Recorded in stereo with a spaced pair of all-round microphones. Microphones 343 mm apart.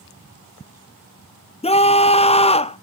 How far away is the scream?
About 0.6 m.